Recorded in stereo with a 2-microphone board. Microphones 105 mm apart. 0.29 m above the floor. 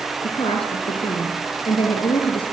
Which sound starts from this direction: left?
A woman speaking, at 0.2 s.